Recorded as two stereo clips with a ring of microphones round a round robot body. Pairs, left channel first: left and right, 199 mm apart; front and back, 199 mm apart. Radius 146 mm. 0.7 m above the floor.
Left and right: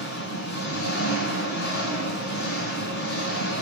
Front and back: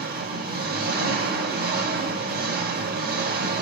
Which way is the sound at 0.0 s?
140° left.